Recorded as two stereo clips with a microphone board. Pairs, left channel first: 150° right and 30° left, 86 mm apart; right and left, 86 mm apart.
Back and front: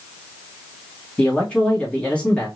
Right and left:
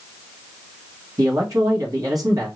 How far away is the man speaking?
About 2.0 m.